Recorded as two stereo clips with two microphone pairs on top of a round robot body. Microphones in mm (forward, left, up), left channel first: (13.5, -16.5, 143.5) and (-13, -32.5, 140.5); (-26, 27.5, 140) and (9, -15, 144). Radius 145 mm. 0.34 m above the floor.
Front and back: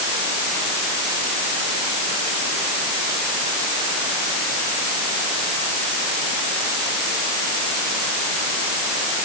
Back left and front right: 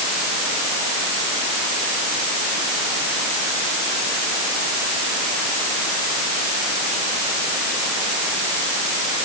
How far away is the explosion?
No explosion in this recording.